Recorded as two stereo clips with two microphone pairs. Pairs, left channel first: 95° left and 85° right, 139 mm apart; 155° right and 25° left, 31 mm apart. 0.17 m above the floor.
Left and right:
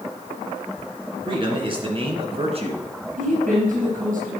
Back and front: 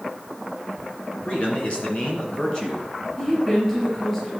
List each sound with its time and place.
1.2 s a man speaking: 135° right, 2.5 m; by 2.9 s 105° right, 2.5 m
3.2 s a woman speaking: 90° right, 3.5 m